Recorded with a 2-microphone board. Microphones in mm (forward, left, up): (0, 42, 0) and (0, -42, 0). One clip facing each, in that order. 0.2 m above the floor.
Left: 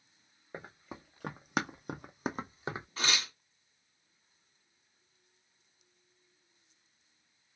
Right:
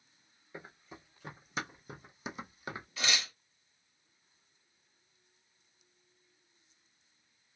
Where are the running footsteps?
55° left (ahead or behind), 1.2 m; by 2.9 s 20° left (ahead or behind), 0.7 m.